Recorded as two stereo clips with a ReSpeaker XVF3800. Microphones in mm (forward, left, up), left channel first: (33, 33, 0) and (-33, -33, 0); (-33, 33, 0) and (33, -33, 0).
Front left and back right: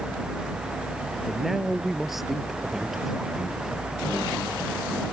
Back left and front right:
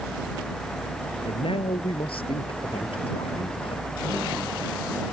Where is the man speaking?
140° left.